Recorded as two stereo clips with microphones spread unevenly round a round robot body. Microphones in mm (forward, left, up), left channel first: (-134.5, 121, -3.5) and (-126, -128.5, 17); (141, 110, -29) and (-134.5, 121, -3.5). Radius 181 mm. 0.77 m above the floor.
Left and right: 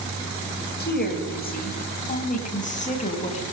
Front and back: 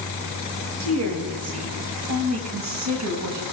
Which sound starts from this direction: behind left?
A woman speaking, at 0.8 s.